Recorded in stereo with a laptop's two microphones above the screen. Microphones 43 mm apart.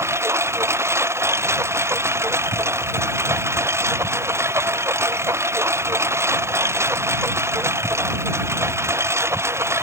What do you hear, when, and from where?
0.0 s a lawn mower: 90° right